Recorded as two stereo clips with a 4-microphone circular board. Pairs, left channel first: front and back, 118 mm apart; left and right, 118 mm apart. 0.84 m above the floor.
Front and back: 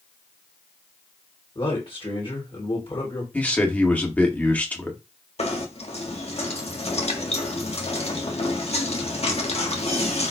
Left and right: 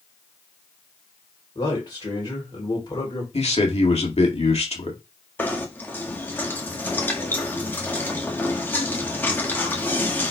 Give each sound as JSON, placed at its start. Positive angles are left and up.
{"t": 1.6, "sound": "a man speaking", "azimuth_deg": 40, "distance_m": 3.5}
{"t": 3.3, "sound": "a man speaking", "azimuth_deg": 75, "distance_m": 2.0}
{"t": 5.4, "sound": "knocking", "azimuth_deg": 20, "distance_m": 1.6}